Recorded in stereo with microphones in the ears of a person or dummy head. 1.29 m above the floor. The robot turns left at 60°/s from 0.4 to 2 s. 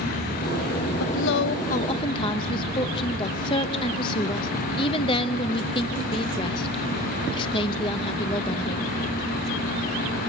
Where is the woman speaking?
90° left, 0.9 m; by 8.9 s 30° left, 0.9 m.